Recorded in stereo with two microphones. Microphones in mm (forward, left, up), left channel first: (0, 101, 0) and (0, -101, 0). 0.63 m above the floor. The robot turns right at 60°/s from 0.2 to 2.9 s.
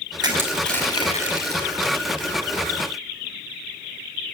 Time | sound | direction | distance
0.2 | crushing | 25° right (ahead or behind) | 5 m